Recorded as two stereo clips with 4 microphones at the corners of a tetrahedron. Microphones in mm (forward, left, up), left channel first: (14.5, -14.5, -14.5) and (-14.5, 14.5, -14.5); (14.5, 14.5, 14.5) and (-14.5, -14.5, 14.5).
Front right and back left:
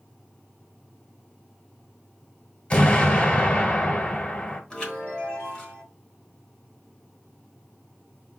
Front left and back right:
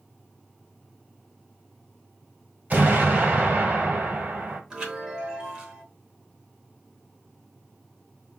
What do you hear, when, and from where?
2.7 s an explosion: 95° right, 1.3 m
4.7 s a chime: 85° right, 1.1 m